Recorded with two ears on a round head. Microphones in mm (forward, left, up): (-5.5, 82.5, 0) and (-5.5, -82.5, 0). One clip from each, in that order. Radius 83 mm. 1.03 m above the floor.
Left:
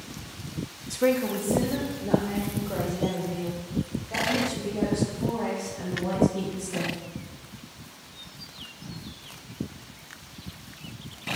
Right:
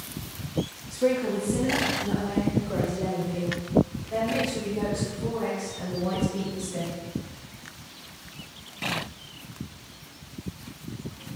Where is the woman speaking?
75° left (ahead or behind), 1.0 m; by 6.9 s 20° left (ahead or behind), 8 m.